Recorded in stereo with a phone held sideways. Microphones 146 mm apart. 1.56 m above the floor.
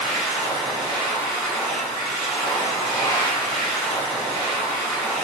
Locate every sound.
0.0 s a machine running: 5° left (ahead or behind), 1.1 m